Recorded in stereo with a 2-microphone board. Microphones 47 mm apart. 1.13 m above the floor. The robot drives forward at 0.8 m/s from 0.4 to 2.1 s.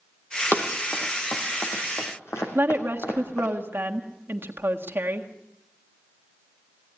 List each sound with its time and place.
0.5 s running footsteps: 45° left (ahead or behind), 3 m; by 3.5 s 75° left (ahead or behind), 4.5 m
2.5 s a woman speaking: 50° right (ahead or behind), 1.6 m